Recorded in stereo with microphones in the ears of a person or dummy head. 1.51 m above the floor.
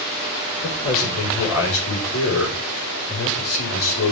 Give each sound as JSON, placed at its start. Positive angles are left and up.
{"t": 0.6, "sound": "a man speaking", "side_deg": 80, "distance_m": 5.0}